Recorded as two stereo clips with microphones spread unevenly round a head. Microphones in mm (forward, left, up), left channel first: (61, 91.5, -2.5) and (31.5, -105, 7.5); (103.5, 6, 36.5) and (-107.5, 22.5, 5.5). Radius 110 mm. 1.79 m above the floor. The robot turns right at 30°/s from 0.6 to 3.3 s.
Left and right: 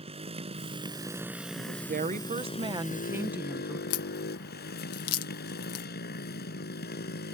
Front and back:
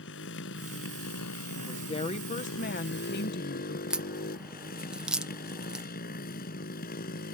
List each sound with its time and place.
0.0 s a motorcycle: 40° right; by 7.3 s 40° left
1.5 s a woman speaking: 75° right; by 3.8 s 20° right
3.9 s a crack: 85° left